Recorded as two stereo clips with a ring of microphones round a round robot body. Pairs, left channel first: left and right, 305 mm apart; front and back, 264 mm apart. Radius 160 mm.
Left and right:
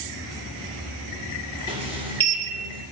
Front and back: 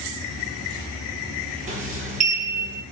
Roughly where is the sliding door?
Behind right.